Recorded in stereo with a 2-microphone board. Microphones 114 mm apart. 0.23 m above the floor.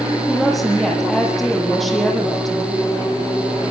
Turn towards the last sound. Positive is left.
turn(degrees=0)  # may be behind; listen again after turning